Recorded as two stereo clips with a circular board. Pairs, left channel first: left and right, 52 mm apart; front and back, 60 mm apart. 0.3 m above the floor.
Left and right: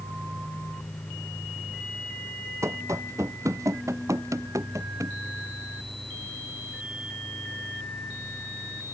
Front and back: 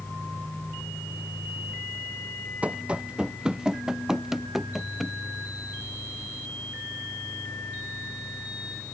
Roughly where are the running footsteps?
Right.